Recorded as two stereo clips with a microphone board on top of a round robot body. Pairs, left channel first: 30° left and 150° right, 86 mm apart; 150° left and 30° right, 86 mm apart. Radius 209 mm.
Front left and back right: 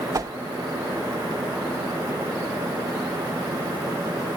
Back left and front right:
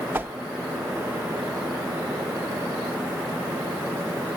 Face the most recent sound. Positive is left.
turn(degrees=-100)